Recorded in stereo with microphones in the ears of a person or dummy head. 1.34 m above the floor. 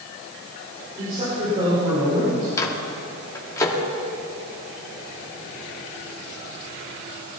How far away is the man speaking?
About 5 m.